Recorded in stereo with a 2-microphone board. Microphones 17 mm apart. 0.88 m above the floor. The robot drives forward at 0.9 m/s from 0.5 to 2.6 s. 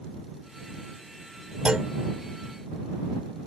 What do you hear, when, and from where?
1.6 s a clunk: 75° right (ahead or behind); by 1.9 s 80° right